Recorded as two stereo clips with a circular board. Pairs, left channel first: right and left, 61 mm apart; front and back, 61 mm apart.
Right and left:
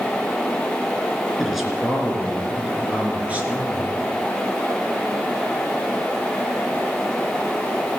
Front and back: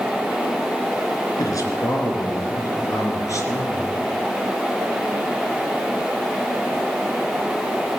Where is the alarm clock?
No alarm clock in this recording.